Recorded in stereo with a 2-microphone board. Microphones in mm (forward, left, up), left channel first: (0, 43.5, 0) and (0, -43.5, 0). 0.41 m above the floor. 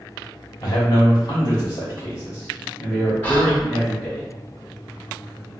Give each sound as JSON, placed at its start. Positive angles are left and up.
{"t": 0.6, "sound": "a man speaking", "side_deg": 45, "distance_m": 1.3}
{"t": 3.2, "sound": "whispering", "side_deg": 15, "distance_m": 0.8}